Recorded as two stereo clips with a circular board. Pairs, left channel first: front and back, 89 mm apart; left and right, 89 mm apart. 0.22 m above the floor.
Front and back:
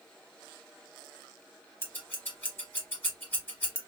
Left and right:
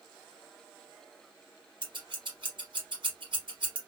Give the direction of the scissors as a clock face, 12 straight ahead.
2 o'clock.